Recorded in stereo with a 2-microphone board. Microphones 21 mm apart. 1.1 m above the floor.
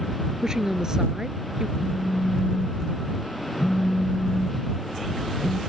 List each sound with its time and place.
0.4 s a woman speaking: 30° right (ahead or behind); by 1.7 s 35° right (ahead or behind)
1.8 s a phone buzzing: 45° left (ahead or behind)